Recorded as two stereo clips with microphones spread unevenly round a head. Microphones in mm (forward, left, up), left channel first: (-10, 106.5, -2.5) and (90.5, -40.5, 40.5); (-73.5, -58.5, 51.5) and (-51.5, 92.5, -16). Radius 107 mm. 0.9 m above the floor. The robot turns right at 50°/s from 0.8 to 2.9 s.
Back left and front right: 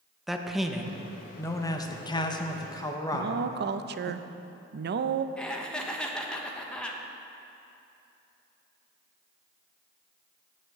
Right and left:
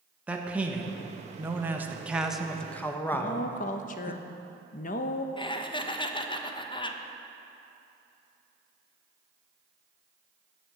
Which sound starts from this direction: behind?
Laughter, at 5.4 s.